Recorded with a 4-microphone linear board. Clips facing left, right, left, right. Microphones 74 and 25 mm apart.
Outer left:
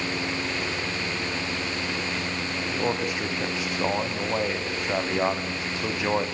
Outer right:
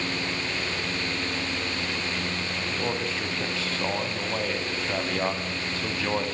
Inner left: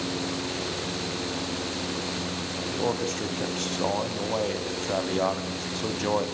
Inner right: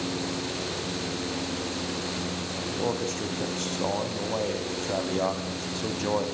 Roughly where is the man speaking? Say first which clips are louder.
Outer left 3 dB, inner left 1 dB; centre.